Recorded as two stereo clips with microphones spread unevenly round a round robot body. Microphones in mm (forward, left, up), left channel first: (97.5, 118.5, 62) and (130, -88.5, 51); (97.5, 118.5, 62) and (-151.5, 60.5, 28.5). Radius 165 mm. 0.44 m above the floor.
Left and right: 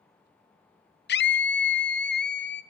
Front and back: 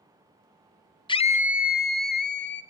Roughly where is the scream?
Left.